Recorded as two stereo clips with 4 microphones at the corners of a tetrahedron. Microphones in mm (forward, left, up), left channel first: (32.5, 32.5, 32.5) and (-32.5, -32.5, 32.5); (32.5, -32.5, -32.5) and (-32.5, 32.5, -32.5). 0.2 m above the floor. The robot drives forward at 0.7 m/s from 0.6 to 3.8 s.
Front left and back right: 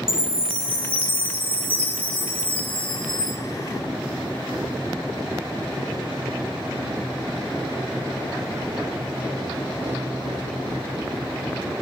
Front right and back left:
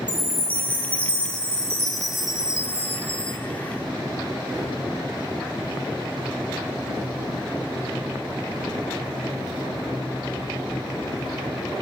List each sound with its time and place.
0.1 s a chime: 25° left, 2 m; by 3.4 s 85° left, 1.0 m